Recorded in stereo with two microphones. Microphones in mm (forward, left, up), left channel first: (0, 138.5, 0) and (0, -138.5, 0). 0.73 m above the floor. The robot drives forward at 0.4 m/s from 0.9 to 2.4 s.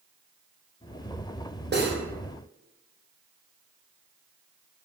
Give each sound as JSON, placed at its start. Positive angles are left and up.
{"t": 1.7, "sound": "cutlery clinking", "side_deg": -40, "distance_m": 0.6}